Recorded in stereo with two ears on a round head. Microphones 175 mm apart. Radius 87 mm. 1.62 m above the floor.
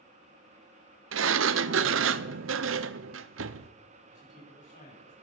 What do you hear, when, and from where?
1.1 s a sliding door: 75° right (ahead or behind), 0.6 m
4.1 s a man speaking: 45° left (ahead or behind), 5.5 m